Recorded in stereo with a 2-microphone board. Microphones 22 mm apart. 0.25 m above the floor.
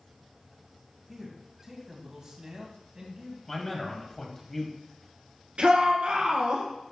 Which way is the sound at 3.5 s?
15° left (ahead or behind).